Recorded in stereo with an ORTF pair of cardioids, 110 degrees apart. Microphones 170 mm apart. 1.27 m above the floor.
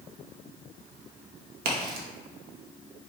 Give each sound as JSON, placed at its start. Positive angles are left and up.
{"t": 1.6, "sound": "a crack", "azimuth_deg": -65, "distance_m": 1.0}